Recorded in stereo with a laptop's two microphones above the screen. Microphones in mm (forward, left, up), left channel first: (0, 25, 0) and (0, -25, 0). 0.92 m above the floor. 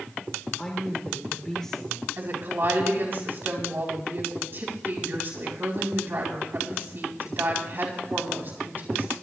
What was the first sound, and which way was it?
A woman speaking, 10° left (ahead or behind).